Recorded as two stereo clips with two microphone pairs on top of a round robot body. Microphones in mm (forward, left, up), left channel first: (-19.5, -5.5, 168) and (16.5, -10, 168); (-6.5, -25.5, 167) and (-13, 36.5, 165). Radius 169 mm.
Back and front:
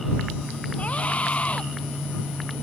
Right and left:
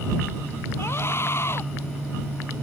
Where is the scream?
130° right.